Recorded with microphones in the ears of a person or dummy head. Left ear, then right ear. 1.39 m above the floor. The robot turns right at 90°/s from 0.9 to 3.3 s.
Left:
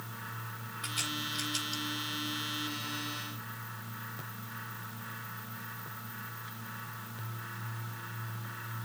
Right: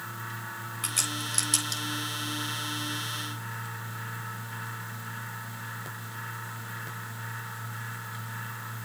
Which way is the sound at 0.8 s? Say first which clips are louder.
Right 3 dB; 20° right (ahead or behind).